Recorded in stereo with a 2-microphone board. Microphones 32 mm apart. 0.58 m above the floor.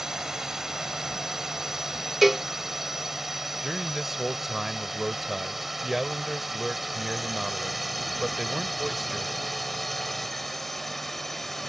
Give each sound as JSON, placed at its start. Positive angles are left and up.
{"t": 0.0, "sound": "a drone", "side_deg": -15}
{"t": 2.2, "sound": "a cowbell", "side_deg": -5}
{"t": 3.6, "sound": "a man speaking", "side_deg": -10}